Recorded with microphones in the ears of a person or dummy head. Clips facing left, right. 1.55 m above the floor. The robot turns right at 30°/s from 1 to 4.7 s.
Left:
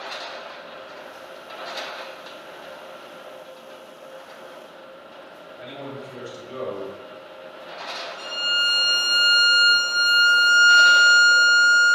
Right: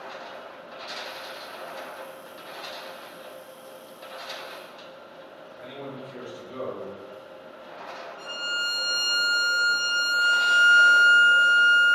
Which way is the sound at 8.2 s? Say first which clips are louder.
Left 4 dB; 75° left (ahead or behind).